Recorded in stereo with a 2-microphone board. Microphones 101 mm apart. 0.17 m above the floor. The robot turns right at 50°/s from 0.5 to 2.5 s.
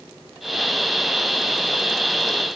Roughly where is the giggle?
No giggle in this recording.